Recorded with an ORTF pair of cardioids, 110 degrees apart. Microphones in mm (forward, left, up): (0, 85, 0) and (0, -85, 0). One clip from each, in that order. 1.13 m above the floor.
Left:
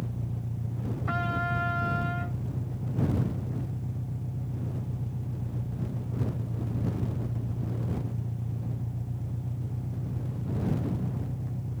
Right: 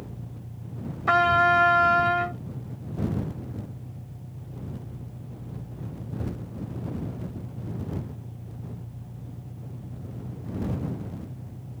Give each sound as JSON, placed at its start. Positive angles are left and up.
{"t": 0.0, "sound": "an engine running", "azimuth_deg": 40}
{"t": 1.1, "sound": "a trumpet", "azimuth_deg": -70}